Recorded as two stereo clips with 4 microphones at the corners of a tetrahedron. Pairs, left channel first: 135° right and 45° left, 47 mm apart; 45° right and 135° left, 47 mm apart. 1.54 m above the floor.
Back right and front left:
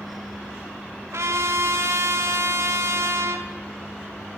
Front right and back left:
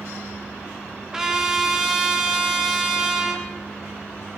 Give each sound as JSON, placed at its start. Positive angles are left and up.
{"t": 1.1, "sound": "a trumpet", "azimuth_deg": 55, "distance_m": 3.5}